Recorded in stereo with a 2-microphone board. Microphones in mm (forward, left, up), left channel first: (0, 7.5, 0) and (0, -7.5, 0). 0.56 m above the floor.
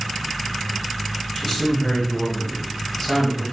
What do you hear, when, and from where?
1.4 s a man speaking: 25° left (ahead or behind), 3.5 m